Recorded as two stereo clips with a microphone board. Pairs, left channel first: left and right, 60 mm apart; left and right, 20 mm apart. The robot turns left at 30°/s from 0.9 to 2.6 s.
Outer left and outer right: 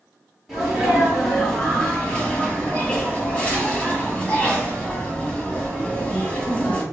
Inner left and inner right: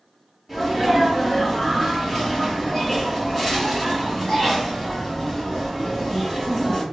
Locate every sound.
0.5 s a sneeze: 175° right, 1.8 m; by 6.8 s 135° left, 1.8 m